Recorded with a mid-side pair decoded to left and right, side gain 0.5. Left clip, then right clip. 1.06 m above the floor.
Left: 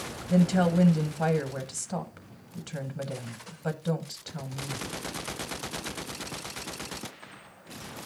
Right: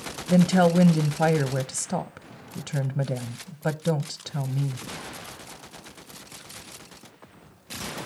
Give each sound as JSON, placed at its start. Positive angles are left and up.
{"t": 0.3, "sound": "a woman speaking", "azimuth_deg": -50, "distance_m": 0.6}